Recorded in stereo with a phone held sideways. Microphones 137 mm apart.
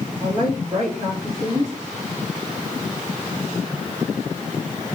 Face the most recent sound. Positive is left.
turn(degrees=-20)  # may be behind; listen again after turning